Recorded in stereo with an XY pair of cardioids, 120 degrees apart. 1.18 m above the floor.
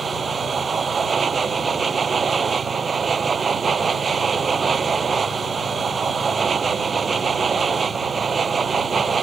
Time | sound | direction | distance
0.0 | a machine running | 30° right | ?